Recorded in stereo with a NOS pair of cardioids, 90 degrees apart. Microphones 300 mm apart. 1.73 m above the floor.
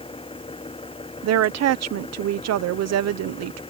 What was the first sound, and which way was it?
An engine running, 20° left.